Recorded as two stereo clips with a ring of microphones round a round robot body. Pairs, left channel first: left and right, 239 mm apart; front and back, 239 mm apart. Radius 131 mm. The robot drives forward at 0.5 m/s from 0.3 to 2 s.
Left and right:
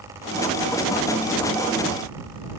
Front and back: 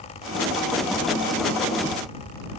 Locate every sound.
Only background noise.